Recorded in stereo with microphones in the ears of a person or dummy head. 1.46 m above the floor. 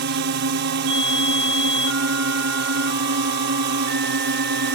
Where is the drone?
55° right (ahead or behind).